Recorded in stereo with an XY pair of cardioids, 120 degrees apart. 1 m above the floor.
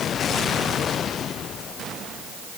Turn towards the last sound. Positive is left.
No sound to turn to.